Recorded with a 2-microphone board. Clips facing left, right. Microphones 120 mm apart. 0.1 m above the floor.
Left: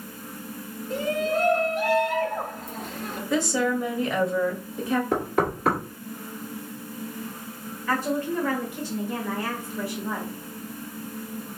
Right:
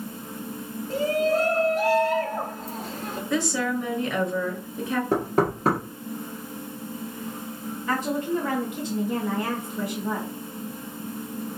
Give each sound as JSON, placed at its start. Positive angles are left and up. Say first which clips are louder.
{"t": 0.9, "sound": "a shout", "louder": "right 3 dB", "side_deg": -40, "distance_m": 1.4}
{"t": 3.3, "sound": "a woman speaking", "louder": "left 2 dB", "side_deg": 0, "distance_m": 1.1}
{"t": 5.1, "sound": "knocking", "louder": "right 2 dB", "side_deg": -35, "distance_m": 1.5}
{"t": 7.9, "sound": "a woman speaking", "louder": "even", "side_deg": -20, "distance_m": 1.4}